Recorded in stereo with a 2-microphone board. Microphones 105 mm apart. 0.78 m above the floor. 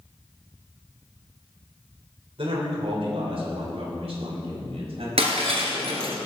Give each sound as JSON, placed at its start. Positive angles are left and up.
{"t": 2.4, "sound": "a man speaking", "side_deg": -65, "distance_m": 3.0}
{"t": 5.2, "sound": "breaking glass", "side_deg": -75, "distance_m": 2.5}